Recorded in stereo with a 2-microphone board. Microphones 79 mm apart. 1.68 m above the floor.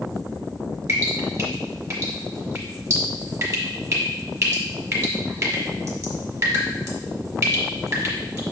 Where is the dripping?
40° right (ahead or behind), 1.2 m.